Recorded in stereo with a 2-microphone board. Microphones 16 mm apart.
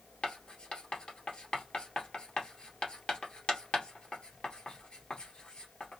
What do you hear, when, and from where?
0.2 s writing: 70° left (ahead or behind), 1.1 m